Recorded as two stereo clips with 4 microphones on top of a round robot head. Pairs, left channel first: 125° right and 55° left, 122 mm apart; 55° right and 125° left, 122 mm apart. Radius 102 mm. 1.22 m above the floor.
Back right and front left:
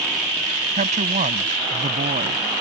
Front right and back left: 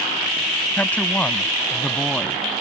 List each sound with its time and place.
0.8 s a woman speaking: 25° left; by 2.4 s 30° left